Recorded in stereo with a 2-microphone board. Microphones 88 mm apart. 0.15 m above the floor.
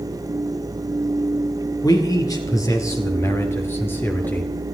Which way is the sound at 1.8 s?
50° left (ahead or behind).